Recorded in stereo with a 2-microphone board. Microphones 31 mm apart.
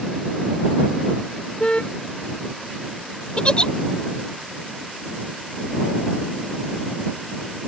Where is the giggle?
30° left (ahead or behind).